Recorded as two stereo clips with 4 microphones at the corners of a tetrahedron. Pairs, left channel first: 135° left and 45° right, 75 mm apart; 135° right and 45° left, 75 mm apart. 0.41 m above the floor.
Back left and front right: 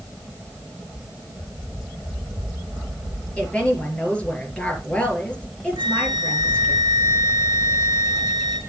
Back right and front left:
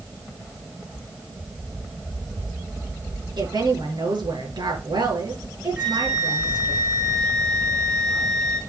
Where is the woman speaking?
60° left, 5.5 m.